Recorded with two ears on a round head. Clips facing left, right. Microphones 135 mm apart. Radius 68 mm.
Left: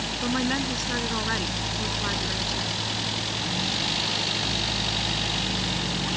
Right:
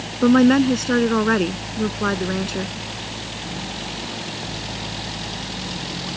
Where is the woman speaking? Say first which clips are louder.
Right 14 dB; 70° right (ahead or behind).